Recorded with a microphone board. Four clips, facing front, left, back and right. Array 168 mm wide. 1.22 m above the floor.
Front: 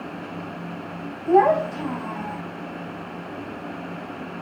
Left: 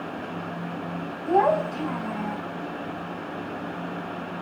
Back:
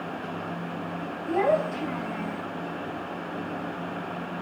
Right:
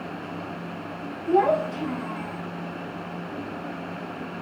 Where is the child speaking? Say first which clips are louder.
Even, front 7 dB; 35° left, 5.5 m; by 2.4 s 40° left, 4.5 m.